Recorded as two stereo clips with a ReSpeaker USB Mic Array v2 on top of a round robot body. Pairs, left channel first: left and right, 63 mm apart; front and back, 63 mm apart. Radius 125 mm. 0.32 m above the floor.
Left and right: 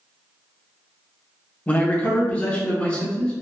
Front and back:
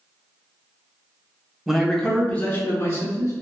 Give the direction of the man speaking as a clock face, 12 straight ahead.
9 o'clock.